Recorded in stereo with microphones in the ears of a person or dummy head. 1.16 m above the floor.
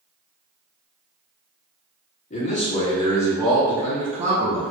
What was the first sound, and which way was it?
A man speaking, 40° left (ahead or behind).